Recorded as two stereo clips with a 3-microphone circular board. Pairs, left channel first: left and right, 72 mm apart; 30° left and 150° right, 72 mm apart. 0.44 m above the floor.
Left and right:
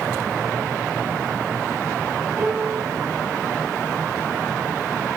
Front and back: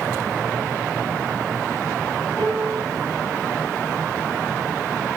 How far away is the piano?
About 6.5 m.